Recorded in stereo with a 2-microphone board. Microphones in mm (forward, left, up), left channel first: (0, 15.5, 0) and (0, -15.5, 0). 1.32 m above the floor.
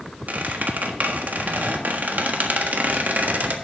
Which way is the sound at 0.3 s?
65° right (ahead or behind).